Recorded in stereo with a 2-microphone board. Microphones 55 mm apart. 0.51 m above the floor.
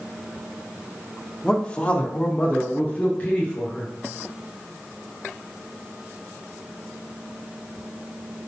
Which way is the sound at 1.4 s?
15° left (ahead or behind).